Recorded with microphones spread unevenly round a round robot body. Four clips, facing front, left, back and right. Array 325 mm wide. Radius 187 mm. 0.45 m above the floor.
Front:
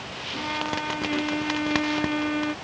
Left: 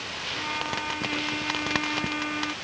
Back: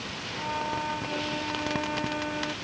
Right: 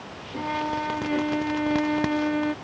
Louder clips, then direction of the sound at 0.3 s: Right 6 dB, front 2 dB; 65° right.